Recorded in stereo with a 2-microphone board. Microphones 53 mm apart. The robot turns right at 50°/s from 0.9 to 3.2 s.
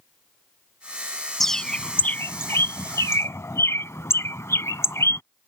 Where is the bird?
5° left (ahead or behind); by 5.2 s 70° left (ahead or behind).